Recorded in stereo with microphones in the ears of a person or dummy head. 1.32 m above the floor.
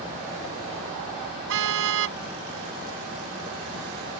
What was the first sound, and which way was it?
A car horn, 65° right (ahead or behind).